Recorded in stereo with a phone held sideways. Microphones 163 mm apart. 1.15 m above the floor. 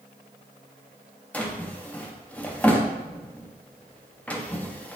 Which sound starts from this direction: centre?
A drawer, at 1.3 s.